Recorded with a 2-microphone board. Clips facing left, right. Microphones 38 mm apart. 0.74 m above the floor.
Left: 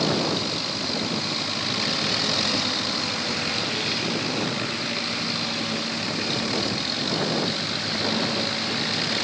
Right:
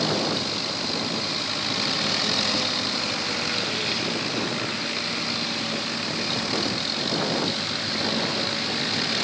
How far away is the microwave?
I don't hear a microwave.